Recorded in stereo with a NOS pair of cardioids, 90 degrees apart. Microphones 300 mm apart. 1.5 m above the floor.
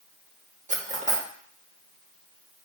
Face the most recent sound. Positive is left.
turn(degrees=-25)